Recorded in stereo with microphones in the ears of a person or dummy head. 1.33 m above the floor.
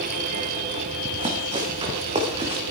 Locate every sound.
1.1 s running footsteps: 35° right (ahead or behind), 4 m; by 2.6 s 25° right (ahead or behind), 4.5 m